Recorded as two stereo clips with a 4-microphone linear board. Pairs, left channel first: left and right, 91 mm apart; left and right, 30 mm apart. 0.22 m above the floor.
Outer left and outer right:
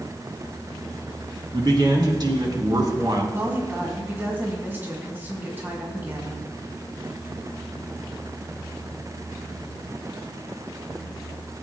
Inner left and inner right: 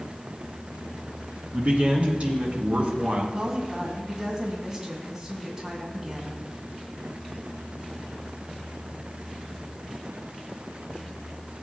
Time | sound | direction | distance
1.5 | a man speaking | 55° right (ahead or behind) | 3 m
3.3 | a woman speaking | 25° right (ahead or behind) | 2 m